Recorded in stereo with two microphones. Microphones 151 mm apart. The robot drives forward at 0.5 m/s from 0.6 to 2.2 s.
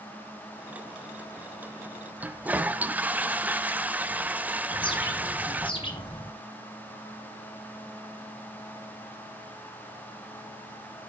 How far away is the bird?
About 1.9 m.